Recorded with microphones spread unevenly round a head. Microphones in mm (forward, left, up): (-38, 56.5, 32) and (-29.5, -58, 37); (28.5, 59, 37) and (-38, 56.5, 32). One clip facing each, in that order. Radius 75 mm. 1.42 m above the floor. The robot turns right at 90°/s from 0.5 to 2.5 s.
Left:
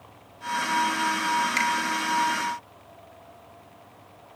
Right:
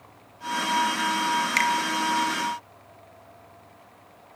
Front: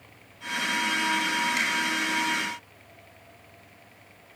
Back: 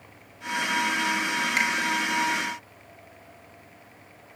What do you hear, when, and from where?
1.6 s a finger snap: 120° right, 2.5 m; by 1.7 s 105° right, 2.5 m